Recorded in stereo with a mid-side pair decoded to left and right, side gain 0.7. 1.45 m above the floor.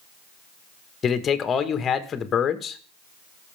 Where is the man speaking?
35° left, 1.7 m.